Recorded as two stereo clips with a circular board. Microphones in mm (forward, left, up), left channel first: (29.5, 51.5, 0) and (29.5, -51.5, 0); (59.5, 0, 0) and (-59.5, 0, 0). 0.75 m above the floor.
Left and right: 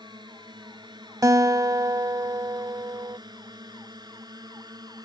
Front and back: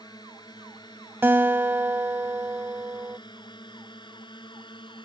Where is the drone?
50° right; by 5.0 s 45° right.